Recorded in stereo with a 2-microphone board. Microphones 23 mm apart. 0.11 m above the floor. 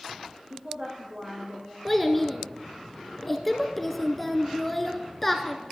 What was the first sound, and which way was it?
A woman speaking, 45° right (ahead or behind).